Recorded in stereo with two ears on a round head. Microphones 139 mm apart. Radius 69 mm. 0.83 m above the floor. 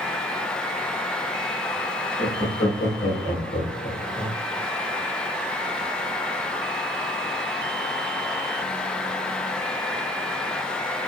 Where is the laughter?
40° left (ahead or behind), 1.7 m; by 4.4 s 60° left (ahead or behind), 2 m.